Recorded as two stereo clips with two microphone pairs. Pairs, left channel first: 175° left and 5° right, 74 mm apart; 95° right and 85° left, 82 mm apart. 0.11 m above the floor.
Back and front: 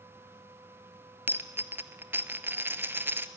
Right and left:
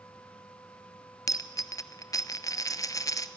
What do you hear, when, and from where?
1.3 s a dropped coin: 65° right, 0.8 m